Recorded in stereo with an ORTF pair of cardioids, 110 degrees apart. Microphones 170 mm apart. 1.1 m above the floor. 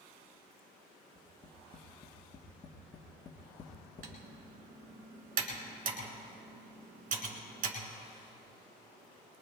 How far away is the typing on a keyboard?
About 3.5 m.